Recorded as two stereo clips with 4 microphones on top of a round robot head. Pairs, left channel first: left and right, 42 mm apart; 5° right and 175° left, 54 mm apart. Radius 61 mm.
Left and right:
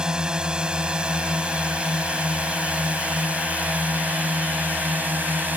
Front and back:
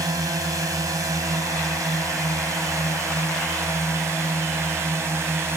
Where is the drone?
160° right; by 5.6 s 135° right.